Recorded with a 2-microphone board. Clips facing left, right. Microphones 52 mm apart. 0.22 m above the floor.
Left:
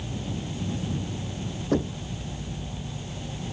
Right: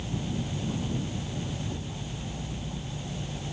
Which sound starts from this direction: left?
Knocking, at 1.7 s.